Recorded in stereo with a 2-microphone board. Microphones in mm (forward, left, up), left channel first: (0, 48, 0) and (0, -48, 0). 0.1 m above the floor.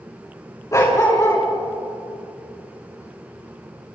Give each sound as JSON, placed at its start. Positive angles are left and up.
{"t": 0.7, "sound": "a dog barking", "side_deg": 30, "distance_m": 5.0}